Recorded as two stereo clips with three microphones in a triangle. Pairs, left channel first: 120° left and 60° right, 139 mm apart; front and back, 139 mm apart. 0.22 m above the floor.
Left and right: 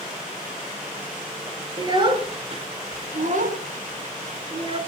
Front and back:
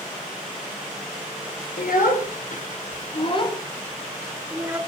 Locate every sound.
1.8 s a child speaking: straight ahead, 3 m; by 4.8 s 110° right, 2.5 m